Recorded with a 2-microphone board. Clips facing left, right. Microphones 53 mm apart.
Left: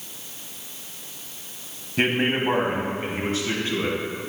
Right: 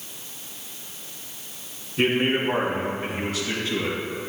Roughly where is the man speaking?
Left.